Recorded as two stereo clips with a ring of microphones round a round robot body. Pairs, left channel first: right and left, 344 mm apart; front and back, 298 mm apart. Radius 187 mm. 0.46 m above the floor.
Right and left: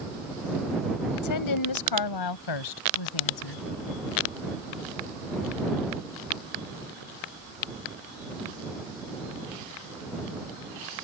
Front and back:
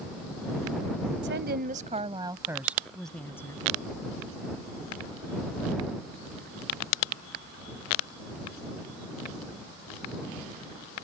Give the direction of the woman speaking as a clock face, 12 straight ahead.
4 o'clock.